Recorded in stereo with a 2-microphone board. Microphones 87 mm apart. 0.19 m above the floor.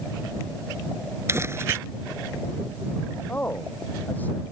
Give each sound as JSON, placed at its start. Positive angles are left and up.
{"t": 1.3, "sound": "crumpling", "side_deg": -30}
{"t": 3.3, "sound": "a man speaking", "side_deg": 20}